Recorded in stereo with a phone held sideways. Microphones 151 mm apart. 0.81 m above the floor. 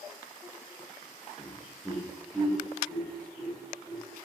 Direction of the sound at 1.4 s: 15° left (ahead or behind).